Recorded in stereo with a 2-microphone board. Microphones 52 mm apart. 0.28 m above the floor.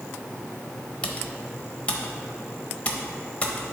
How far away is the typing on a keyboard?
About 0.7 m.